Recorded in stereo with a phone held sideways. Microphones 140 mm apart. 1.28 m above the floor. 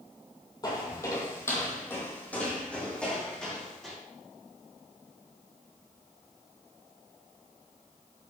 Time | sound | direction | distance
0.6 | footsteps | 30° left (ahead or behind) | 2 m